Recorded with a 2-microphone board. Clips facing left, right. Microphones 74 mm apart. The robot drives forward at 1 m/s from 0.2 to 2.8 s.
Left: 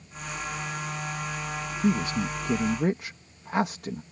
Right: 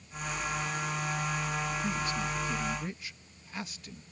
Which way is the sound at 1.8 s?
70° left (ahead or behind).